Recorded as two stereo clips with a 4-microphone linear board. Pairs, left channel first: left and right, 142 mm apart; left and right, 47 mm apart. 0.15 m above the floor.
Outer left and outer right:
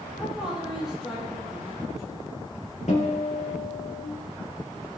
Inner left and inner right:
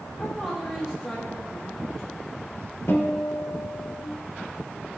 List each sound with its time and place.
0.2 s a woman speaking: 5° right (ahead or behind), 3.5 m; by 2.2 s centre (ahead or behind), 6.5 m
2.9 s a guitar: 55° left (ahead or behind), 4 m